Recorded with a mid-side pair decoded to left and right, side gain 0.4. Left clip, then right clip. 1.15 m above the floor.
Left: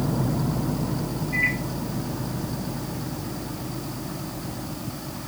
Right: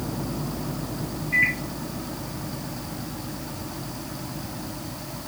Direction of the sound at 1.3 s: 65° right.